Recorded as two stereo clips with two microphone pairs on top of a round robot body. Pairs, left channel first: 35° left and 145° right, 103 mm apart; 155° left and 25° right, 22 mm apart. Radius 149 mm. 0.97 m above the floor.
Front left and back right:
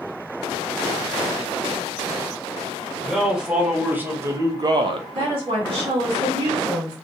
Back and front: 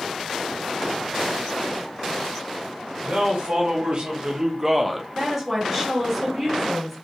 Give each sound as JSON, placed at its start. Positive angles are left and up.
{"t": 3.0, "sound": "a man speaking", "azimuth_deg": -55, "distance_m": 1.9}
{"t": 5.2, "sound": "a woman speaking", "azimuth_deg": -110, "distance_m": 2.0}